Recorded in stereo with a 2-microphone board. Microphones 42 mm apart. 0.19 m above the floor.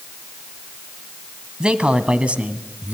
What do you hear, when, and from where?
1.6 s a man speaking: 25° right (ahead or behind), 1.3 m; by 3.0 s 35° right (ahead or behind), 1.6 m